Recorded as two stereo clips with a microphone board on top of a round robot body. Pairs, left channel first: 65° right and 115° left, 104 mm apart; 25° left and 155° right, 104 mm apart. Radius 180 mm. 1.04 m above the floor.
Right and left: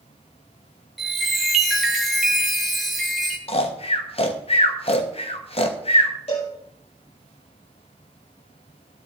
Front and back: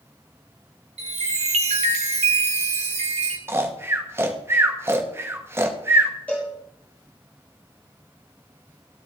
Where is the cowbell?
55° right, 6.5 m.